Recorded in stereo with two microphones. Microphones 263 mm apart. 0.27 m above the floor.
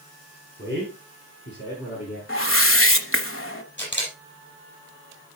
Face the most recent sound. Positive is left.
turn(degrees=45)  # may be behind; listen again after turning